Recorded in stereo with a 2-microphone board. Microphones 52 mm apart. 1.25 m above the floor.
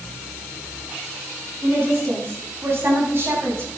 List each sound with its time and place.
1.6 s a woman speaking: 55° right (ahead or behind), 9 m; by 3.7 s 50° right (ahead or behind), 7.5 m